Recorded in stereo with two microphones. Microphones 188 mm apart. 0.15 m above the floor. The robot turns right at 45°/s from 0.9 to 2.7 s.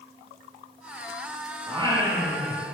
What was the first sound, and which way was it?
Singing, 35° right.